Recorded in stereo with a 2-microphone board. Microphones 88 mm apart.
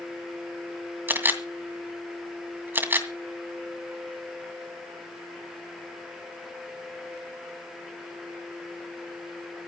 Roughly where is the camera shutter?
Right.